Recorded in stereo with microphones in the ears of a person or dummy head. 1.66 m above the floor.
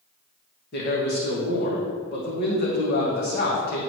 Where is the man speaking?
55° left (ahead or behind), 1.8 m.